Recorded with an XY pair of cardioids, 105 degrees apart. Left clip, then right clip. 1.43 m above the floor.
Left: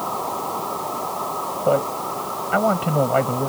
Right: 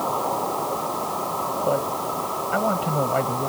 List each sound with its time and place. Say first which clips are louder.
1.6 s a man speaking: left 6 dB; 30° left